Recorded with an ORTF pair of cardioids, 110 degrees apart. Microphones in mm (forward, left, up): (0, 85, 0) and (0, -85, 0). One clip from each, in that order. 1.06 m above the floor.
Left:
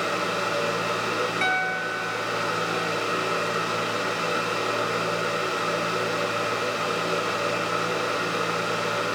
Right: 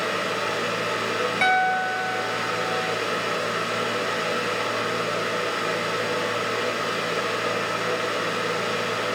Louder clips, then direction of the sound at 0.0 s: Even; 10° right.